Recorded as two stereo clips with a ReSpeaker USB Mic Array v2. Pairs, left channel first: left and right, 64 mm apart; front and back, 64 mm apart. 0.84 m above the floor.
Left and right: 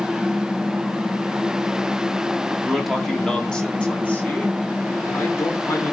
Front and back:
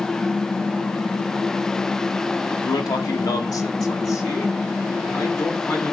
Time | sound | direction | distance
2.6 | a man speaking | 5° right | 1.9 m